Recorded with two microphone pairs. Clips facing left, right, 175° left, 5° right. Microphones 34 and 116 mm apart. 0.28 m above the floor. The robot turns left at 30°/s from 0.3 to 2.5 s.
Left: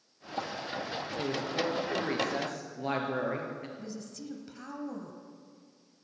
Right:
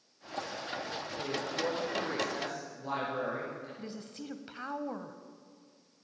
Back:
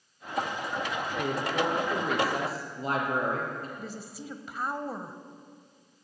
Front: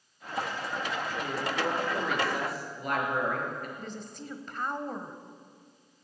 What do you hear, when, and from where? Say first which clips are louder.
1.2 s a woman speaking: left 2 dB, back 4 dB; 160° left, 4.5 m; by 3.7 s 120° left, 4.5 m
3.8 s a woman speaking: left 1 dB, even; 100° right, 1.1 m